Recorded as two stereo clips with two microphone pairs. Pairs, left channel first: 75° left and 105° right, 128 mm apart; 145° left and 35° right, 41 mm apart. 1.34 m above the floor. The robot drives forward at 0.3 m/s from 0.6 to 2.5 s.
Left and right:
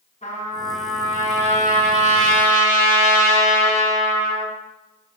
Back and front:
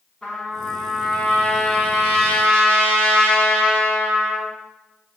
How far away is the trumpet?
About 4.5 m.